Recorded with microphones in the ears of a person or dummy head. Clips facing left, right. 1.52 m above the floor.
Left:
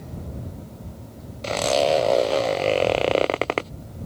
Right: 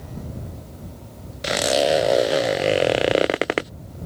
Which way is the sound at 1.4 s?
15° right (ahead or behind).